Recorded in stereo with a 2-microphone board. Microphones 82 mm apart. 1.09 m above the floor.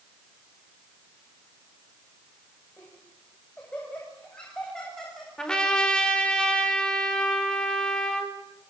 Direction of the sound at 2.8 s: 20° left (ahead or behind).